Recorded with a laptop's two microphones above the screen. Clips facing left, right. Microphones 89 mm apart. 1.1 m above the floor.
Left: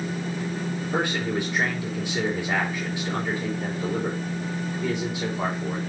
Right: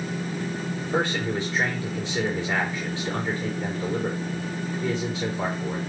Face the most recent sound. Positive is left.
turn(degrees=15)  # may be behind; listen again after turning